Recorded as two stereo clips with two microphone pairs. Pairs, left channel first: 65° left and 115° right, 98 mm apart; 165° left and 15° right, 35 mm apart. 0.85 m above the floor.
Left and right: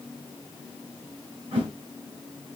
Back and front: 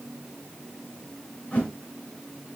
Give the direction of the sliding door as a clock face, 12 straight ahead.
No sliding door in this recording.